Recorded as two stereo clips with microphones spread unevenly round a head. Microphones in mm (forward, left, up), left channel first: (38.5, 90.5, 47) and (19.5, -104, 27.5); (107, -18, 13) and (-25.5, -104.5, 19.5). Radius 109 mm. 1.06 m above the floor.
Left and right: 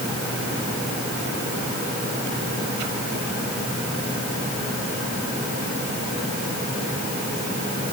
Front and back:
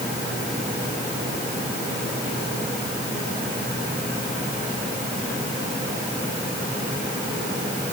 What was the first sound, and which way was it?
Only background noise.